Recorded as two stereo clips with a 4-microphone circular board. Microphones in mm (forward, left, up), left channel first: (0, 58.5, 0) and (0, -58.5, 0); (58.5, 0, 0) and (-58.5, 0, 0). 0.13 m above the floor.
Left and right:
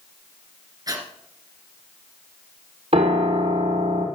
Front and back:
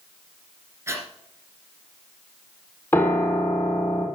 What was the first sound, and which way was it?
Breathing, 125° right.